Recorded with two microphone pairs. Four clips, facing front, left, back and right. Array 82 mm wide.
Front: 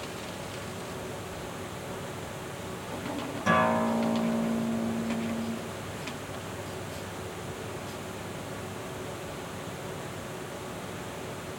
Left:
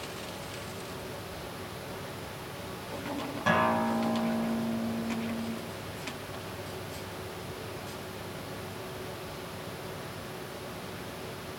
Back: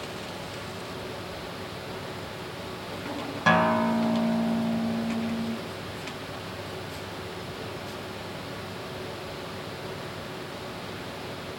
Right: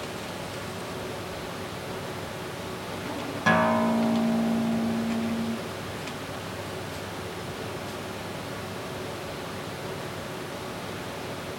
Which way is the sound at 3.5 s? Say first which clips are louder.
Right 4 dB, back 3 dB; 155° right.